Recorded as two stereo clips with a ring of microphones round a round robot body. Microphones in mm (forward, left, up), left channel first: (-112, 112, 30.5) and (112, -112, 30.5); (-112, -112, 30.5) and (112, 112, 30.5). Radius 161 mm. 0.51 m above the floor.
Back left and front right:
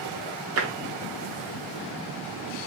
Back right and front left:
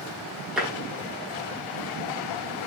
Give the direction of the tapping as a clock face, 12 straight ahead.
1 o'clock.